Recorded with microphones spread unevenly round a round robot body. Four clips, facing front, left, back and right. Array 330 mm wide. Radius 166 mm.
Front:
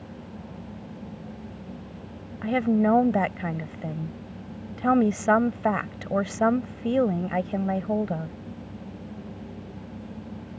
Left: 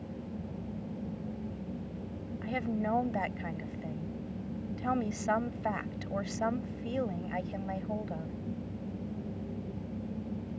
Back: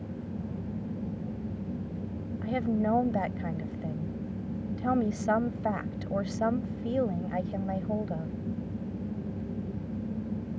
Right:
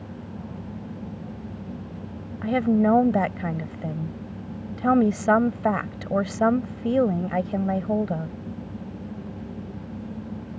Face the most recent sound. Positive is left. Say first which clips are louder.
# right 13 dB, front 7 dB
turn(degrees=-55)